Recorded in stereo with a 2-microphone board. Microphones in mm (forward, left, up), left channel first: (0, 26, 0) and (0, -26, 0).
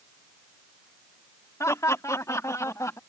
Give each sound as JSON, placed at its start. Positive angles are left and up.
{"t": 1.6, "sound": "laughter", "side_deg": 75}